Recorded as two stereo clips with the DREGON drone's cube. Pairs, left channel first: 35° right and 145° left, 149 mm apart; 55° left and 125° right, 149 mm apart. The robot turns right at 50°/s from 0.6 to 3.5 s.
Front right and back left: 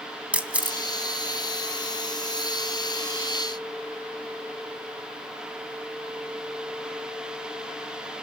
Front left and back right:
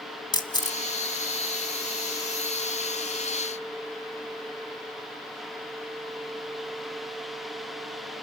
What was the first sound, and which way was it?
A camera shutter, 75° left.